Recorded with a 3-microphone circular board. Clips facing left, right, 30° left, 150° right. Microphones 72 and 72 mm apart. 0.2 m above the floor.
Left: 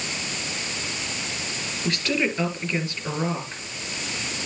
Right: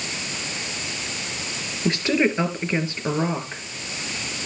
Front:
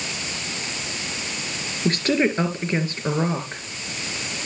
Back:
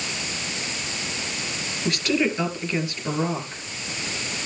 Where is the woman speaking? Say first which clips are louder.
Right 5 dB, front 3 dB; 25° right, 3.5 m.